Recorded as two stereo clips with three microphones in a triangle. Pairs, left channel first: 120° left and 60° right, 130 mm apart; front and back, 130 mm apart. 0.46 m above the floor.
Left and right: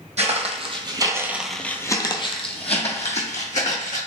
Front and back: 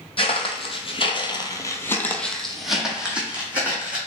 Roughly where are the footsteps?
Ahead right.